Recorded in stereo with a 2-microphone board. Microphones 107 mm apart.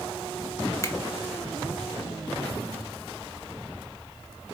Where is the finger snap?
30° left (ahead or behind), 1.2 m.